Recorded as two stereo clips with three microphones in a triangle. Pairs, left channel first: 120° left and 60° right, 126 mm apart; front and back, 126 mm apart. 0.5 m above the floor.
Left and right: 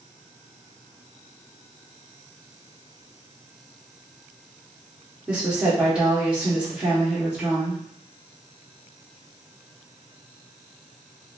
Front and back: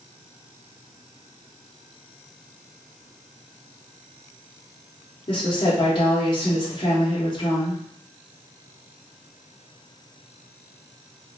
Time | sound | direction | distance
5.3 | a woman speaking | 15° left | 1.0 m